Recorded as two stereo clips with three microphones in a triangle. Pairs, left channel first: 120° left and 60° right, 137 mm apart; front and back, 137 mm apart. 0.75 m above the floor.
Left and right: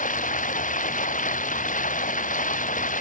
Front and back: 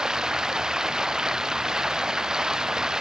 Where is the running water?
95° left.